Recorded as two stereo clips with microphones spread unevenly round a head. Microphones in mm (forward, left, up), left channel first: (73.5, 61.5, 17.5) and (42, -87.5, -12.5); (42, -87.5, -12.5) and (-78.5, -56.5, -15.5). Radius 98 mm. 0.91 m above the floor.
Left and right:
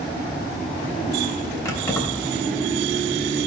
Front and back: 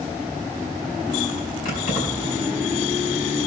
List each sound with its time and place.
1.6 s keys jangling: 10° left, 3.5 m